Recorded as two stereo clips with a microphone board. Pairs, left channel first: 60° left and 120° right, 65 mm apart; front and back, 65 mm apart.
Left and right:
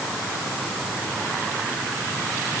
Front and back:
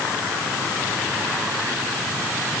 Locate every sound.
Only background noise.